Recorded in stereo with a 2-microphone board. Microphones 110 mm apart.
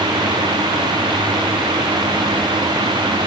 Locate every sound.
Only background noise.